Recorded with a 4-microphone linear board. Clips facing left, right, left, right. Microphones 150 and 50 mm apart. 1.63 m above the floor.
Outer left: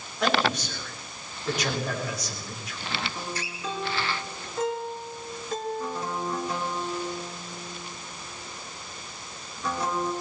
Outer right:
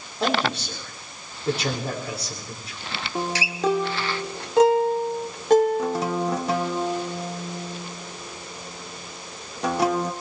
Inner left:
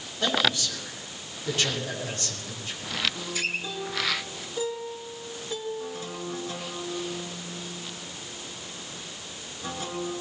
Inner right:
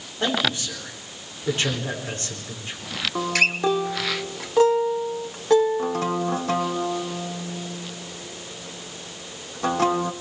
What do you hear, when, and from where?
0.2 s a man speaking: 30° right (ahead or behind), 7 m
3.1 s a guitar: 85° right, 1.3 m